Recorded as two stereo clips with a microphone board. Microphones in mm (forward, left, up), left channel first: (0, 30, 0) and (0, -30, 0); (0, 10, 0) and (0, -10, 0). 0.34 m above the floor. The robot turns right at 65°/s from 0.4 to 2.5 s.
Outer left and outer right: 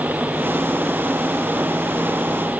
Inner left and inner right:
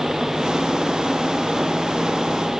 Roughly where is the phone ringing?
No phone ringing in this recording.